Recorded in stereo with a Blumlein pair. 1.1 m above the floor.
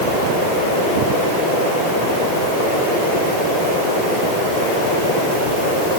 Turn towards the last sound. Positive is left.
No sound to turn to.